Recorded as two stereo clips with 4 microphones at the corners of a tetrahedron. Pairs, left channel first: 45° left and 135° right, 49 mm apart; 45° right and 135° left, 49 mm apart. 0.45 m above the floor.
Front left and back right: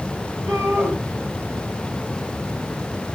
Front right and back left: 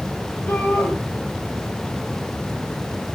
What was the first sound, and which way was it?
A shout, 100° right.